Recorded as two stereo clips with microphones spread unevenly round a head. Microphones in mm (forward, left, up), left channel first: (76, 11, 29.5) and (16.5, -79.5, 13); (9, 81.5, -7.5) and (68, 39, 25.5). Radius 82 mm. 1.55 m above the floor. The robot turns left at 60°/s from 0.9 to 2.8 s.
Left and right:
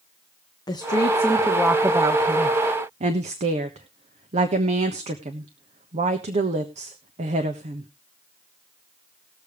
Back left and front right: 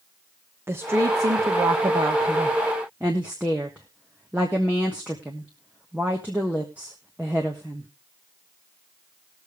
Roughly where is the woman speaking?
Ahead.